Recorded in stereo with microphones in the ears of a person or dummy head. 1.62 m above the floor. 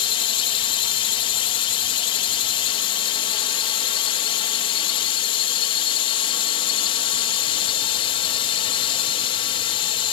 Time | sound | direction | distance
0.0 | a drone | 25° left (ahead or behind) | ?